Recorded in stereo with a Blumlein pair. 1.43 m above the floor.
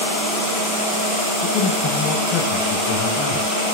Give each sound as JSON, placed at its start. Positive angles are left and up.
{"t": 1.4, "sound": "a man speaking", "azimuth_deg": 35, "distance_m": 4.0}